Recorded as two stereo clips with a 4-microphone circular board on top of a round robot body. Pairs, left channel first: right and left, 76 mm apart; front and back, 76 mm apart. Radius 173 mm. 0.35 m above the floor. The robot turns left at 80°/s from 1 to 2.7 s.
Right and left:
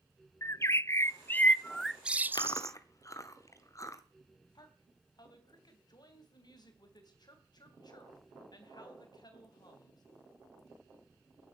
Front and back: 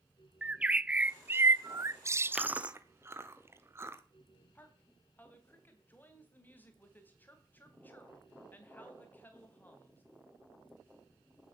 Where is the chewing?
100° right, 1.6 m; by 4.0 s 130° right, 1.6 m.